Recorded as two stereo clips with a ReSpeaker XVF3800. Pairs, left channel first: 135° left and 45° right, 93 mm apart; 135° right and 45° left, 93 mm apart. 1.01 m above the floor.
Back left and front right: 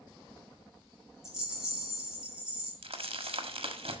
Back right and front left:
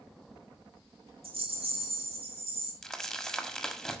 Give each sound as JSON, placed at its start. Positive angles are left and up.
{"t": 1.2, "sound": "a rattle", "azimuth_deg": 40, "distance_m": 4.0}
{"t": 2.8, "sound": "crumpling", "azimuth_deg": -50, "distance_m": 1.6}